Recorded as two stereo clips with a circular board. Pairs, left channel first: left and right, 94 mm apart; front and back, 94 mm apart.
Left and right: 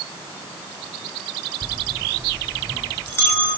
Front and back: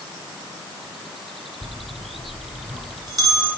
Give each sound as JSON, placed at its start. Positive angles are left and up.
{"t": 1.6, "sound": "a bell", "azimuth_deg": 155, "distance_m": 3.0}